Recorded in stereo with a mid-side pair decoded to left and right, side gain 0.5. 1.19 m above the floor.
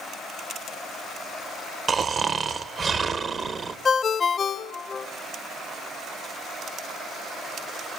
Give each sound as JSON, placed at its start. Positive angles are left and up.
{"t": 1.9, "sound": "snoring", "azimuth_deg": -45, "distance_m": 0.9}
{"t": 3.9, "sound": "a ringtone", "azimuth_deg": 35, "distance_m": 1.1}